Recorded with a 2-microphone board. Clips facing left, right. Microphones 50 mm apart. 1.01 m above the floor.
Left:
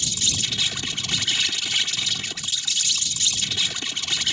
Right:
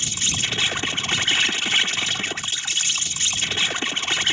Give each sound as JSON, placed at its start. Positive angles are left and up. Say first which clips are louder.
{"t": 0.0, "sound": "an insect", "louder": "right 2 dB", "side_deg": -40}